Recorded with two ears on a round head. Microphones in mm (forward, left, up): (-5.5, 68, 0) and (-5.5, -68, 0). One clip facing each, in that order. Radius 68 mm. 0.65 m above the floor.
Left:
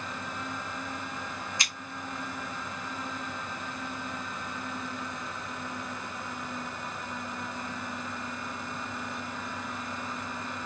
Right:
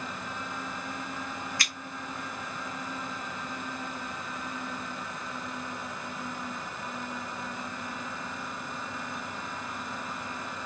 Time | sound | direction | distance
1.6 | scissors | 20° left (ahead or behind) | 1.1 m